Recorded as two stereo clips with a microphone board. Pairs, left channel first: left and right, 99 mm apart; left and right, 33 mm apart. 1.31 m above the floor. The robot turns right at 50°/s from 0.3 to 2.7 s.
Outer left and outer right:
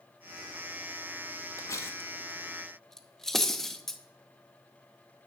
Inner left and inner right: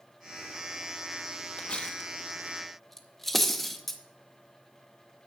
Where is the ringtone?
I don't hear a ringtone.